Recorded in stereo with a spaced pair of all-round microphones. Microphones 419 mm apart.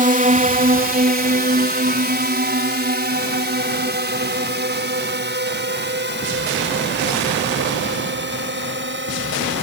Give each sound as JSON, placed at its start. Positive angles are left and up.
{"t": 0.0, "sound": "a drone", "side_deg": -20}